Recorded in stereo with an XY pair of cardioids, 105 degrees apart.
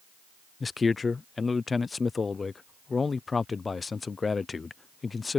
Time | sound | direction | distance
0.6 | a man speaking | 30° left | ?